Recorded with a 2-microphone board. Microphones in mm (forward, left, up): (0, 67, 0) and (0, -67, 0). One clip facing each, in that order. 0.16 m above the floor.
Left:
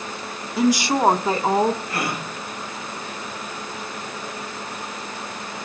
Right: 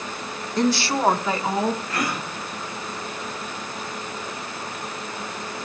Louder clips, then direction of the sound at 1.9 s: Even; 25° left (ahead or behind).